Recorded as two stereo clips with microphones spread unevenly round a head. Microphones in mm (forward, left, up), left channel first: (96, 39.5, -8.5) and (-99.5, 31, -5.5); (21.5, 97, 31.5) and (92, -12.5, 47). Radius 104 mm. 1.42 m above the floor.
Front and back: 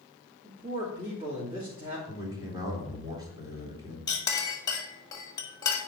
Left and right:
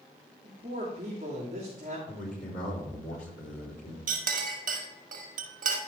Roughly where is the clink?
Right.